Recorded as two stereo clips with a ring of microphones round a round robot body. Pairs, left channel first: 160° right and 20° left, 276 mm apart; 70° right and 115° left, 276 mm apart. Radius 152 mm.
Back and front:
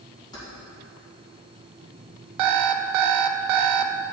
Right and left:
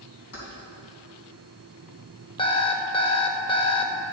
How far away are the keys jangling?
About 3 m.